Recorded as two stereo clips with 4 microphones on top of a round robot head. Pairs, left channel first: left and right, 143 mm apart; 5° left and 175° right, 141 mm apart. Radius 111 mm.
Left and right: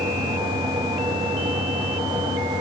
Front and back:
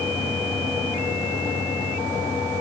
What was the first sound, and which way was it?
Only background noise.